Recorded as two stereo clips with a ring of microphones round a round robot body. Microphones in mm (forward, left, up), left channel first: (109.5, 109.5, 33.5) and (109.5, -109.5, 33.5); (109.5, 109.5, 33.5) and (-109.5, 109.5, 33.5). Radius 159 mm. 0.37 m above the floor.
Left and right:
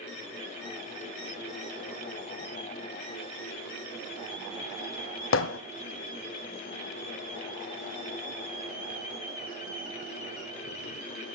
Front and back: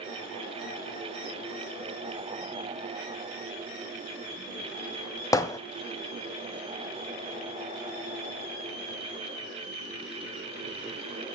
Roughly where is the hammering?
Left.